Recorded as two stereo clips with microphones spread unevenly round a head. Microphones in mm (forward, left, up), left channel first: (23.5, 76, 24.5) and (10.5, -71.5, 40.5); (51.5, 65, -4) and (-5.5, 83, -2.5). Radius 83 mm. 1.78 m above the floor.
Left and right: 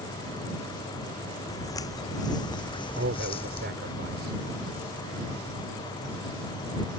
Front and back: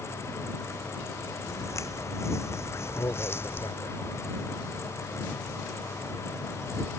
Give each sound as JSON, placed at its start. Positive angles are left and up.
{"t": 1.5, "sound": "footsteps", "azimuth_deg": 15}
{"t": 3.0, "sound": "a man speaking", "azimuth_deg": -75}